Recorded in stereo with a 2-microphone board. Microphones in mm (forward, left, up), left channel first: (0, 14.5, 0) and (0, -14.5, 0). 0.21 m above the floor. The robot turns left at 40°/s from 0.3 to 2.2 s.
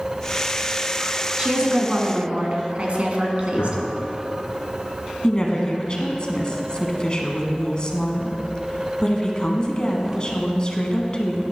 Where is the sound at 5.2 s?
30° left (ahead or behind), 1.6 m.